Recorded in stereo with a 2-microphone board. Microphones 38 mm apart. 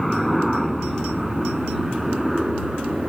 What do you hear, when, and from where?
0.0 s a helicopter: centre (ahead or behind); by 3.1 s 5° right (ahead or behind)